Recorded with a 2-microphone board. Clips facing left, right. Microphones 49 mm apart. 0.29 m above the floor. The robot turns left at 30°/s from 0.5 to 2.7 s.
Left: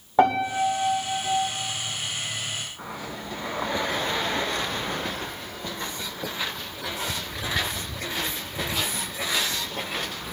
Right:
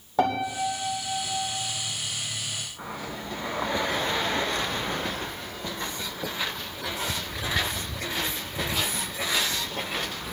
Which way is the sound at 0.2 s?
30° left (ahead or behind).